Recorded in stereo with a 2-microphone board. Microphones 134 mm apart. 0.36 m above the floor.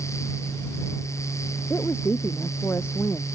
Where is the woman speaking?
20° left (ahead or behind).